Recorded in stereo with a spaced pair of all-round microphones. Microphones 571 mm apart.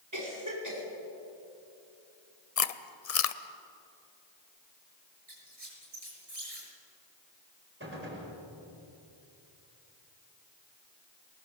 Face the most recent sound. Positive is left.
turn(degrees=-20)  # may be behind; listen again after turning